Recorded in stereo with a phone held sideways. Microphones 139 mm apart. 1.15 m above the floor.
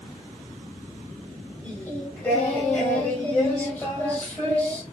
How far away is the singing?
About 2 m.